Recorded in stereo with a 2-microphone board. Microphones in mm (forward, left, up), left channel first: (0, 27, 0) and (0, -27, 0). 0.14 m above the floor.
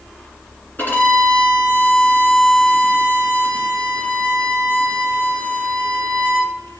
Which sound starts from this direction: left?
A violin, at 0.8 s.